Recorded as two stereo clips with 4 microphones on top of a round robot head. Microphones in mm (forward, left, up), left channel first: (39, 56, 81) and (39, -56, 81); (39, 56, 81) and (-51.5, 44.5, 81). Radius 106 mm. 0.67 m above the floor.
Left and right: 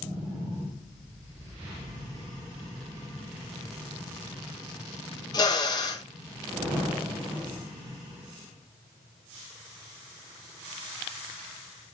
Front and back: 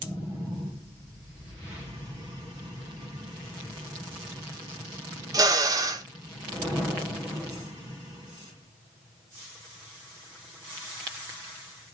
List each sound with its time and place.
5.3 s a drill: 140° left, 2 m